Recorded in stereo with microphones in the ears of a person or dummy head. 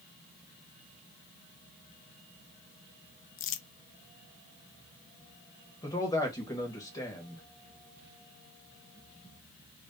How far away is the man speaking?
About 1.4 m.